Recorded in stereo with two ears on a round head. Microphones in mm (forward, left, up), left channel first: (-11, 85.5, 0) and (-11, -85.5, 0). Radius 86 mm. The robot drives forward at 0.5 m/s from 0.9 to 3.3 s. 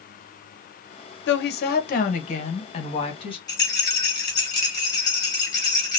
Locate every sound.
1.3 s a woman speaking: 65° left (ahead or behind), 0.8 m; by 3.4 s 30° left (ahead or behind), 1.5 m
3.5 s a rattle: 20° left (ahead or behind), 1.9 m